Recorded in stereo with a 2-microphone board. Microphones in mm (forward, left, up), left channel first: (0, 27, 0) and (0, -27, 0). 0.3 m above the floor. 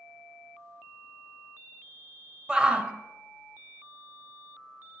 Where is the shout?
15° right (ahead or behind), 1.0 m.